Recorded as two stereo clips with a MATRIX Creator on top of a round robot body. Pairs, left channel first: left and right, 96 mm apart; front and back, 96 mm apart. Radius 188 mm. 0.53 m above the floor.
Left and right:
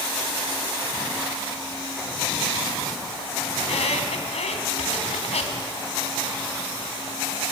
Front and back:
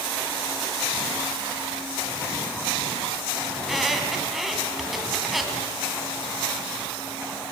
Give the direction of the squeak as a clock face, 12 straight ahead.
9 o'clock.